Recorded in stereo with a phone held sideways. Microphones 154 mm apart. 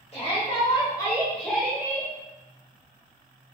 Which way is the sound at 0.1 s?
40° left (ahead or behind).